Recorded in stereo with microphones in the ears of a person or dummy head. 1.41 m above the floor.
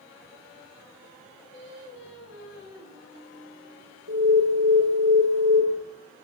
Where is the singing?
65° left (ahead or behind), 5 m.